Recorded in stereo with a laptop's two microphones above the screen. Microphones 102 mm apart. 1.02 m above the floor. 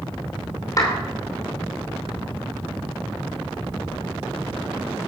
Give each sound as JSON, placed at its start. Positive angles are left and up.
{"t": 0.8, "sound": "a clap", "side_deg": 35, "distance_m": 3.0}